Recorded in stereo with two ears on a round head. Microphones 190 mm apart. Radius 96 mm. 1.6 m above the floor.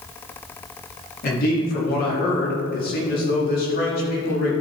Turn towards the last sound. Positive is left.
turn(degrees=45)  # may be behind; listen again after turning